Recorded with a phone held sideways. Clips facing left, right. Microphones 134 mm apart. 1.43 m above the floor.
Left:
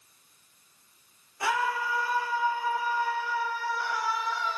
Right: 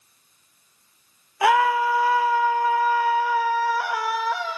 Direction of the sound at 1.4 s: 75° right (ahead or behind).